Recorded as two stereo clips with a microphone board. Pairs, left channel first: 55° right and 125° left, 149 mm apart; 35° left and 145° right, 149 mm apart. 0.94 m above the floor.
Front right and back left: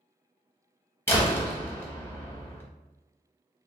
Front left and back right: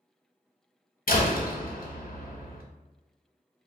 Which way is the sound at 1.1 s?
15° left.